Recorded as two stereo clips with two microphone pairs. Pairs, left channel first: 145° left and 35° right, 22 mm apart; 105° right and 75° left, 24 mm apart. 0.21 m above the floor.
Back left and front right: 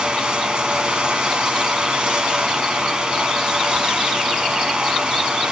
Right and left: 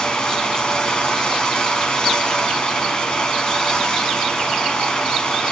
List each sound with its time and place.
0.0 s running water: 65° right, 1.5 m